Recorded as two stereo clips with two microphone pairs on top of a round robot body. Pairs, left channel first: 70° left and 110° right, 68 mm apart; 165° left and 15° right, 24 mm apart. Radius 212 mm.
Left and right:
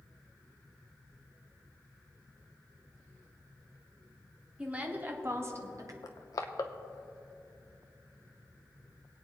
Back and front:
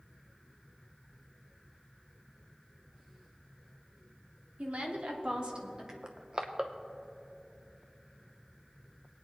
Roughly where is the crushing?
Ahead left.